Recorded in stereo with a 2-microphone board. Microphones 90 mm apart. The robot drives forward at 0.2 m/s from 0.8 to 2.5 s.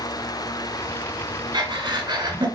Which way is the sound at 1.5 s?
50° right (ahead or behind).